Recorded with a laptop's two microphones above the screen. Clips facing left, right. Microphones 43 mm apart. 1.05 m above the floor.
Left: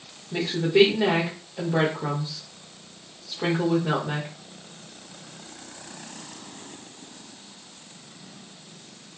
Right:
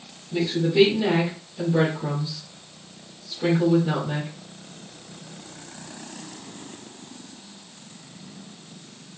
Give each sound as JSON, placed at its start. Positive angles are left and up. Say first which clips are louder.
{"t": 0.3, "sound": "a woman speaking", "louder": "even", "side_deg": 75, "distance_m": 1.2}